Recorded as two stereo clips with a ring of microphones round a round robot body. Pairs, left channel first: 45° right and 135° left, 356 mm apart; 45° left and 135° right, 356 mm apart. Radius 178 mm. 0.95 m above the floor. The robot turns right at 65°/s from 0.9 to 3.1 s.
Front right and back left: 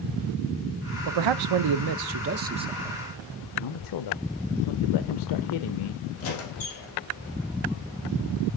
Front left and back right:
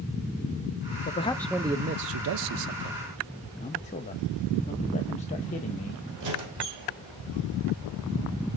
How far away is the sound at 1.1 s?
About 0.5 m.